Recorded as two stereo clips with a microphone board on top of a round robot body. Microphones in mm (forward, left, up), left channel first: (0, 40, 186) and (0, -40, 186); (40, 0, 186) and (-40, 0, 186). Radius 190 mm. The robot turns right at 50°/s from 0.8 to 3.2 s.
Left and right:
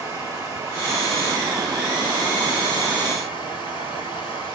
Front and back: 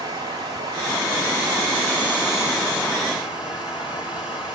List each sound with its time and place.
0.0 s running water: 145° right, 5 m; by 4.6 s 25° right, 5 m